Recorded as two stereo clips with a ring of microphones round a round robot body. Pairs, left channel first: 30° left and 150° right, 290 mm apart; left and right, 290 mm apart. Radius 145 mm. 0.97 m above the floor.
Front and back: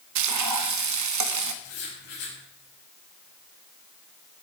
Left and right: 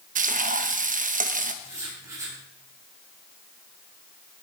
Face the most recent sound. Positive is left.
turn(degrees=-10)